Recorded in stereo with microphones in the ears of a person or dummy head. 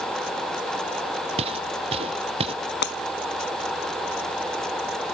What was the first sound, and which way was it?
Footsteps, 35° right (ahead or behind).